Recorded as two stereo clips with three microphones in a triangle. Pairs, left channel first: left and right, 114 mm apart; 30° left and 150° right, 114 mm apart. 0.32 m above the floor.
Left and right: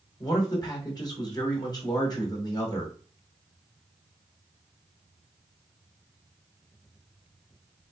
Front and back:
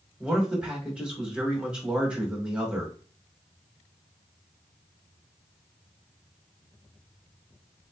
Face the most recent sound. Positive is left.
turn(degrees=130)